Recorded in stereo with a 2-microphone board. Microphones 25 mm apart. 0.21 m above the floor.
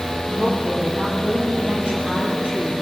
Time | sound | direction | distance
0.3 | a woman speaking | 55° right (ahead or behind) | 8.5 m